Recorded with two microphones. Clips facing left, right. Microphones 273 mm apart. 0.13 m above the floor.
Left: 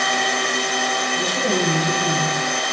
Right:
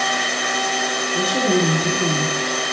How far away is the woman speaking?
About 3 m.